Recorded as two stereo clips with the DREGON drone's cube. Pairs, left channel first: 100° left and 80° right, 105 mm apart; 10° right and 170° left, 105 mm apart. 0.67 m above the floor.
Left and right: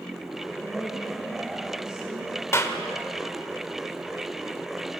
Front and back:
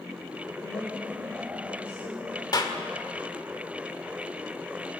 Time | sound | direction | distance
0.6 | a woman speaking | straight ahead | 4 m
2.5 | a clap | 35° left | 1.7 m